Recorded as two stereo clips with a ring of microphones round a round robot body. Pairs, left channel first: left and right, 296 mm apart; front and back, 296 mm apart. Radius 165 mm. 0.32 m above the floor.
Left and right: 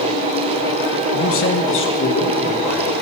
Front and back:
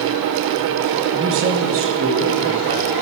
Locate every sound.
1.1 s a man speaking: 125° left, 2.5 m; by 2.9 s 140° left, 4.5 m